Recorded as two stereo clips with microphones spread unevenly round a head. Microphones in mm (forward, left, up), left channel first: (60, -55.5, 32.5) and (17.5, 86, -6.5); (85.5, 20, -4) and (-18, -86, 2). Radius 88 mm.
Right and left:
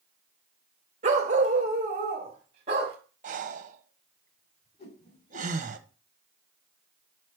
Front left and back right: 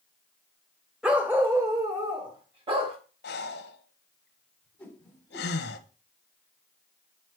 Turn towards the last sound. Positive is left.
turn(degrees=-40)